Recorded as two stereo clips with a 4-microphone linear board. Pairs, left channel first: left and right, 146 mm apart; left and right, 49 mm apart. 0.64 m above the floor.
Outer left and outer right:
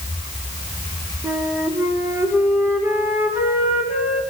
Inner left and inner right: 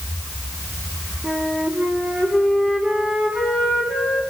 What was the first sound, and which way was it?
A flute, 15° right (ahead or behind).